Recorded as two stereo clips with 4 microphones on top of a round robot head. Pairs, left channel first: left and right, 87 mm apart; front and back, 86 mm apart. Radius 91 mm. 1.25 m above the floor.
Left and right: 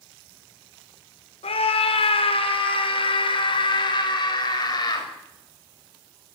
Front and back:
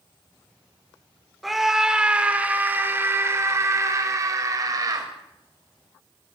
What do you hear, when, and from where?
1.4 s a scream: 90° left, 5 m; by 5.1 s 135° left, 8 m